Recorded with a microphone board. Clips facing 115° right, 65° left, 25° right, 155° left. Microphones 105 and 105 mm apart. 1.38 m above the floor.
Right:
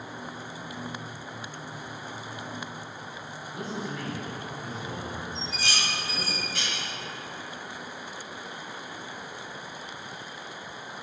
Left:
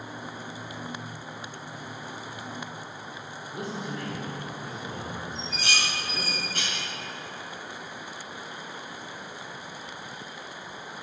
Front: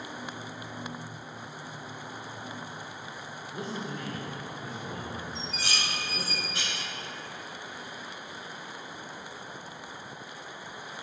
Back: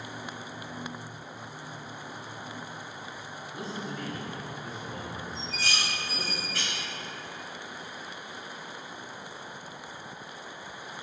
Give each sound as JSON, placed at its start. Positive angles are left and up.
{"t": 3.5, "sound": "a man speaking", "azimuth_deg": 25, "distance_m": 1.9}
{"t": 5.3, "sound": "dishes clattering", "azimuth_deg": 45, "distance_m": 1.5}